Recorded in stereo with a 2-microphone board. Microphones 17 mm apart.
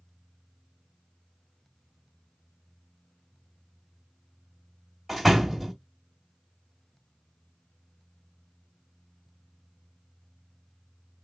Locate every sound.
5.1 s a door slam: 5° right (ahead or behind), 1.4 m